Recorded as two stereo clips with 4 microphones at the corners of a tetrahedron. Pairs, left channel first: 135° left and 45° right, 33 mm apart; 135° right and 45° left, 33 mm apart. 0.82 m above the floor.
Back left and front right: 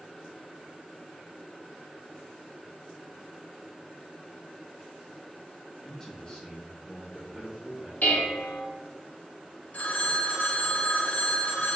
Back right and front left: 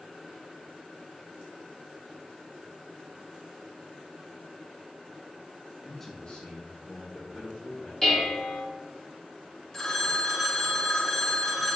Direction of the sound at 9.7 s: 150° left.